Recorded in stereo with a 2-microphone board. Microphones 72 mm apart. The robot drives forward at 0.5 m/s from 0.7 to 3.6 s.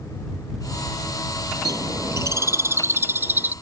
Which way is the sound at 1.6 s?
60° right (ahead or behind).